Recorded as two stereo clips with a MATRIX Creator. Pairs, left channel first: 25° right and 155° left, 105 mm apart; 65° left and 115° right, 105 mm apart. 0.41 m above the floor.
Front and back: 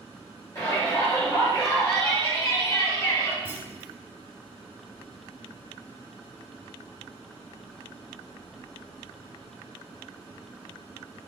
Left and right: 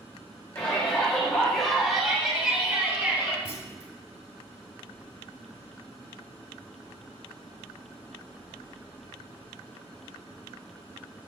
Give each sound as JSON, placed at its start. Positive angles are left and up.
{"t": 0.6, "sound": "a shout", "azimuth_deg": 15, "distance_m": 1.8}
{"t": 3.5, "sound": "a clunk", "azimuth_deg": -135, "distance_m": 1.0}